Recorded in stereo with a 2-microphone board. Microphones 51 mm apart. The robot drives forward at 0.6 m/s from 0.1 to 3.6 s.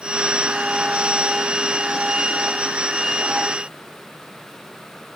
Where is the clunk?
No clunk in this recording.